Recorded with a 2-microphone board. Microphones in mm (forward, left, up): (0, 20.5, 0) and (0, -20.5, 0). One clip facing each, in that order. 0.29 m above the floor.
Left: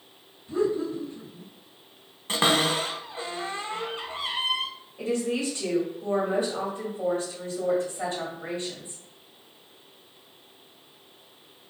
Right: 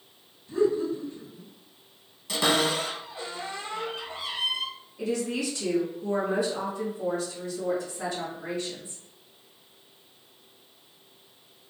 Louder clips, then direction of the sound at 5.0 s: Left 2 dB; 40° left (ahead or behind).